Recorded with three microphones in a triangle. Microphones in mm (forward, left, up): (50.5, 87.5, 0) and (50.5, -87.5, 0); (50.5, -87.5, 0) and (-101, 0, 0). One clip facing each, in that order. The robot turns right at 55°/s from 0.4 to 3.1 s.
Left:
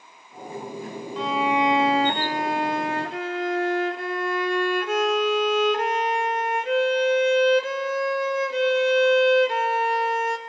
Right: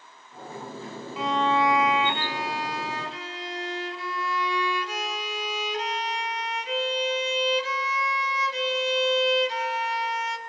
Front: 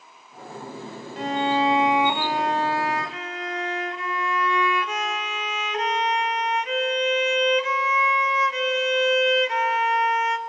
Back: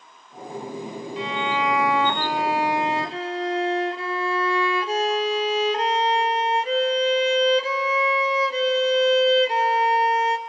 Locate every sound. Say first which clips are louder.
1.2 s a violin: left 1 dB, front 4 dB; 5° right, 0.6 m; by 10.4 s 100° left, 0.6 m